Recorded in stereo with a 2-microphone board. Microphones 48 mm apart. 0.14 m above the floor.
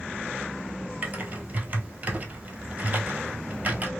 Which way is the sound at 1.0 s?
35° right (ahead or behind).